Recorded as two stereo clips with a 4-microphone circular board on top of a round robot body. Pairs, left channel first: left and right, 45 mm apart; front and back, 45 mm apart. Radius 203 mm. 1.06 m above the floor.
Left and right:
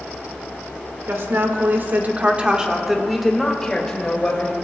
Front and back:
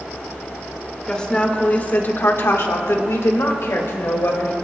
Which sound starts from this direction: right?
A woman speaking, at 1.1 s.